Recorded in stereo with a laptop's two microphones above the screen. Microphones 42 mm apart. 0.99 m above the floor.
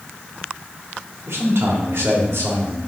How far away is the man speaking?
About 1.8 m.